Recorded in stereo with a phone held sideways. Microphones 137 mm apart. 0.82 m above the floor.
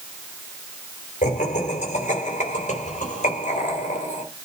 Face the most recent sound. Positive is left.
turn(degrees=65)  # may be behind; listen again after turning